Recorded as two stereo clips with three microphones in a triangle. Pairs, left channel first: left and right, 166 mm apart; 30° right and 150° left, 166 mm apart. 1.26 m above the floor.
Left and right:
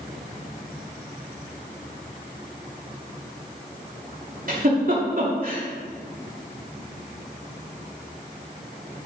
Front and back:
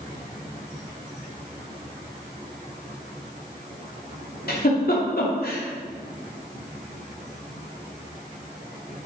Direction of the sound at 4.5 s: 55° right.